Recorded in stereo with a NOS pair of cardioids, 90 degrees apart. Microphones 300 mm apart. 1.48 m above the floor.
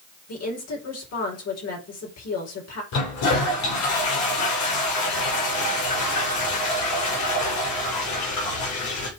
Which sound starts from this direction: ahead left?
A woman speaking, at 0.3 s.